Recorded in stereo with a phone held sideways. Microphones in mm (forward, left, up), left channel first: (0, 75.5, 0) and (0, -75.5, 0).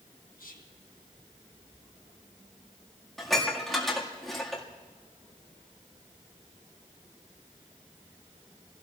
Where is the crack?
I don't hear a crack.